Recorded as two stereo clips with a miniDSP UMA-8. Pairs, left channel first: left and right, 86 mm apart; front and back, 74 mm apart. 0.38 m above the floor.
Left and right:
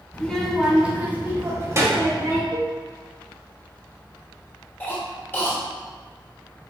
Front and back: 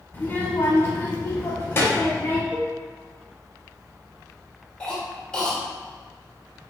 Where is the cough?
60° left, 1.3 m.